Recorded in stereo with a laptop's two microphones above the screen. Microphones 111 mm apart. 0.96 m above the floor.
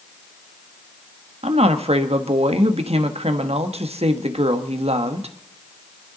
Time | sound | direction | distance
1.4 | a woman speaking | 70° right (ahead or behind) | 1.0 m